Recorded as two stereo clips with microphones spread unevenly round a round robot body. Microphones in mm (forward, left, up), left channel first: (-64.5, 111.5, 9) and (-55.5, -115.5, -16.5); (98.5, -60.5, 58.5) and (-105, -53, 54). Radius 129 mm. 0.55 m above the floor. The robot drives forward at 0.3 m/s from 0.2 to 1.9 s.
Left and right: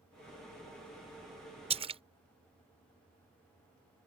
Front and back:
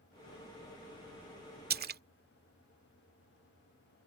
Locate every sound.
1.7 s a splash: 145° right; by 2.0 s 150° right